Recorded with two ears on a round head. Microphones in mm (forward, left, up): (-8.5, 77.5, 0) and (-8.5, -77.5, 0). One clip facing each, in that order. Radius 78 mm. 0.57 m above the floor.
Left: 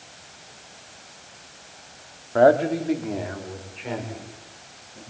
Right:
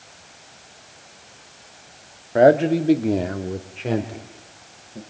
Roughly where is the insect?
I don't hear an insect.